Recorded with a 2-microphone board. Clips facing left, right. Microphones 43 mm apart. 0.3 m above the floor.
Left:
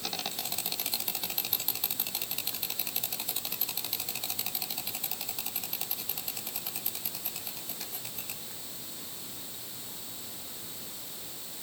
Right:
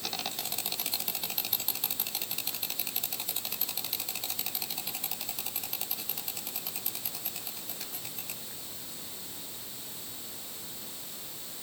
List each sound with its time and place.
Only background noise.